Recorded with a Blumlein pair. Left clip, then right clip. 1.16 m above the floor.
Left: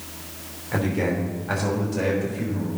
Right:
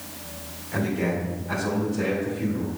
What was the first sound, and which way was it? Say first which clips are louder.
A man speaking: left 2 dB; 20° left.